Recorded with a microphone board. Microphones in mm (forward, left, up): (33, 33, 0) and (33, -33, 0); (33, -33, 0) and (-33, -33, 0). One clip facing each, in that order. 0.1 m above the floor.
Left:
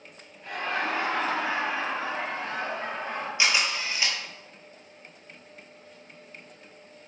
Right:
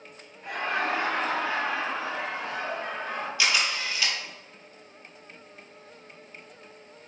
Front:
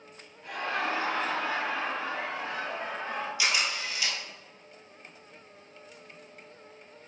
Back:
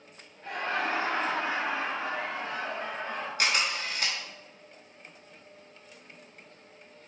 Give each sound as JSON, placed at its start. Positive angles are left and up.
{"t": 0.4, "sound": "laughter", "azimuth_deg": -155, "distance_m": 1.9}
{"t": 3.4, "sound": "a camera shutter", "azimuth_deg": 150, "distance_m": 1.0}